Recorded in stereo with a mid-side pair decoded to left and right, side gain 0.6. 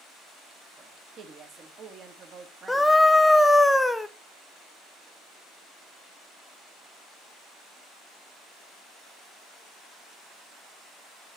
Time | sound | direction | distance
0.8 | a woman speaking | 45° right | 1.6 m
2.7 | a scream | 10° left | 0.8 m